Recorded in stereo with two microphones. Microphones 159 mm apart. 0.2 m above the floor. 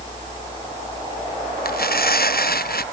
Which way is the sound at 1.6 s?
65° left (ahead or behind).